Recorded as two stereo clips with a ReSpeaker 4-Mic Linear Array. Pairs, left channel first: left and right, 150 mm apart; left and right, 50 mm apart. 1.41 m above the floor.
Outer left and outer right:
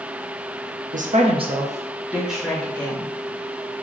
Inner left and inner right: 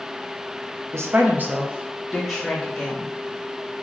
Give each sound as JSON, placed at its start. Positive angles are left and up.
{"t": 0.9, "sound": "a woman speaking", "side_deg": -65, "distance_m": 0.6}